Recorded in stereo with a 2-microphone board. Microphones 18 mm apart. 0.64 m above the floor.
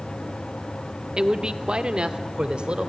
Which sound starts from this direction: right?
A man speaking, at 1.2 s.